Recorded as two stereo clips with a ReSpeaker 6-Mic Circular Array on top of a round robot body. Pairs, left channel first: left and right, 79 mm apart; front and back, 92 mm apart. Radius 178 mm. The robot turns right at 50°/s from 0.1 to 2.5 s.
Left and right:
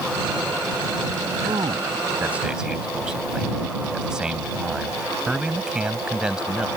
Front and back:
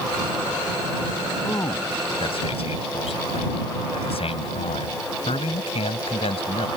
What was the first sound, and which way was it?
A man speaking, 65° right.